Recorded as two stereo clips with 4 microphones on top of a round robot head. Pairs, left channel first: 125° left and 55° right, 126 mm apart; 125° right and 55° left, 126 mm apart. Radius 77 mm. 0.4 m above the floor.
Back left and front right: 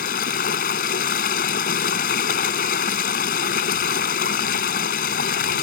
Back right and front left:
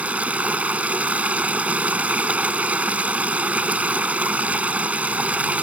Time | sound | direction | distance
0.0 | running water | 135° left | ?